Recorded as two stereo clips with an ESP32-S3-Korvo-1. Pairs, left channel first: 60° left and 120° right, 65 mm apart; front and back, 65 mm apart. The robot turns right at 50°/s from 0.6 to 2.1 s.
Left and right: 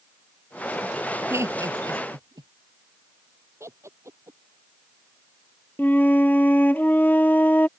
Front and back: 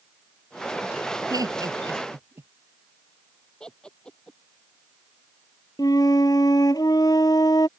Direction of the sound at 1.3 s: 170° right.